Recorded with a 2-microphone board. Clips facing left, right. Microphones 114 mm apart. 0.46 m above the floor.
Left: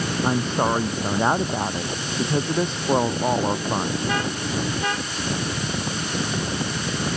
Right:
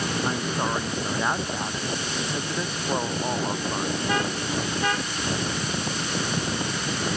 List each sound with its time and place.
0.2 s a woman speaking: 30° left (ahead or behind)